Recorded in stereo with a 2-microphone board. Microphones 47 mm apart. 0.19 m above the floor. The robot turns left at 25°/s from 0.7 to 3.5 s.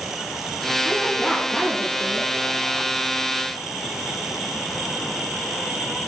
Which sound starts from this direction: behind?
A woman speaking, at 0.8 s.